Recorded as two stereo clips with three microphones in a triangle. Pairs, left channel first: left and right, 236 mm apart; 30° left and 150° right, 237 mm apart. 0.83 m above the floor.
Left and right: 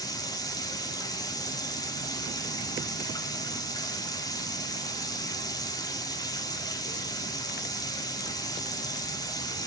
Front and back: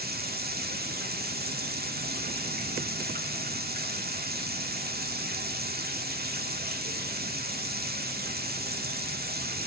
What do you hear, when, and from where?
0.0 s running water: 165° left, 1.8 m